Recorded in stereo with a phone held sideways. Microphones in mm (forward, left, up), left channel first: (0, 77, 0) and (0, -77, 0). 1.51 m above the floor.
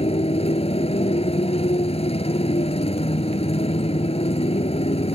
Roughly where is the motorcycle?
Left.